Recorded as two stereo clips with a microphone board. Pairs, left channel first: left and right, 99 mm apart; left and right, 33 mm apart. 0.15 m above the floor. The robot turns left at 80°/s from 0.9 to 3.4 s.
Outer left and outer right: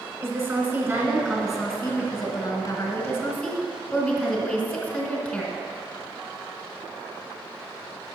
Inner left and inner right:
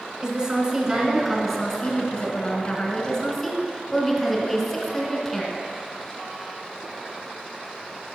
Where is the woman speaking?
130° right, 1.7 m; by 5.5 s 30° left, 1.7 m.